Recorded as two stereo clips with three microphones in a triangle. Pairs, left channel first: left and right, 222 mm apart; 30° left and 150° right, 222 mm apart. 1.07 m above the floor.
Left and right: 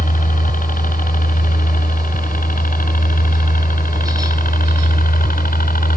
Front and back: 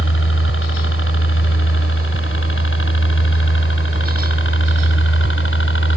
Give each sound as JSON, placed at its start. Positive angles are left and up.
{"t": 0.0, "sound": "a helicopter", "azimuth_deg": 40}